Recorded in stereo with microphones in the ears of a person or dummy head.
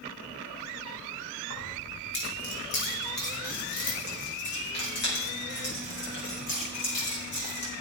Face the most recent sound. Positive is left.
turn(degrees=55)  # may be behind; listen again after turning